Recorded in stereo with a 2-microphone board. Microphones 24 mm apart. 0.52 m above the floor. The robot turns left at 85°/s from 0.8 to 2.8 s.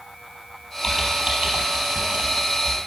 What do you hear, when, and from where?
0.8 s typing on a keyboard: 5° left (ahead or behind), 4 m; by 2.8 s 20° right (ahead or behind), 4 m